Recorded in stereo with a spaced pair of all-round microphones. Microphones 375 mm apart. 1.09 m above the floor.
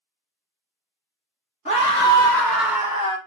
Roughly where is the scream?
Centre.